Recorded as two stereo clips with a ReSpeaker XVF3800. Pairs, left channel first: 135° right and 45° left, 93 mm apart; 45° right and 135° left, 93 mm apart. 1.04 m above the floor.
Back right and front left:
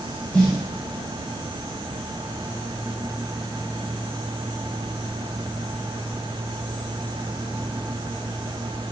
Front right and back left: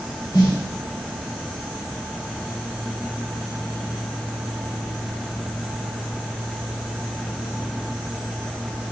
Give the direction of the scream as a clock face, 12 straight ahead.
No scream in this recording.